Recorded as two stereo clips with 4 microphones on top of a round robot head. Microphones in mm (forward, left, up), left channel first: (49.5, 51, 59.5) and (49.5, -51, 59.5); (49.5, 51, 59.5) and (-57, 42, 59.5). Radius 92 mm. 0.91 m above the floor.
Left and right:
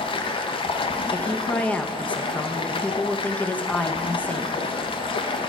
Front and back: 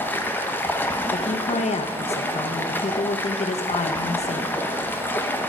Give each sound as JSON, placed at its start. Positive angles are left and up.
{"t": 0.0, "sound": "running water", "azimuth_deg": 75, "distance_m": 0.9}
{"t": 1.1, "sound": "a woman speaking", "azimuth_deg": 15, "distance_m": 0.6}